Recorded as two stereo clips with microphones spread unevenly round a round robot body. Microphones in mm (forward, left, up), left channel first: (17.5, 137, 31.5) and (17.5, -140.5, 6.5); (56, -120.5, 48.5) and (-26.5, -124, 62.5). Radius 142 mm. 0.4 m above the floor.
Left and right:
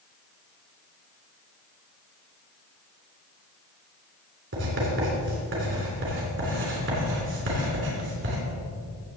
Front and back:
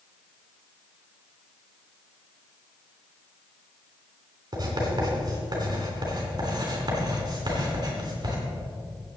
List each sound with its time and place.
4.5 s writing: 140° right, 3.5 m